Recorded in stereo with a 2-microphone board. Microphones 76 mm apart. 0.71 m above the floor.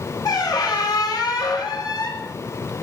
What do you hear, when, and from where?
0.2 s a squeak: 55° left (ahead or behind), 0.8 m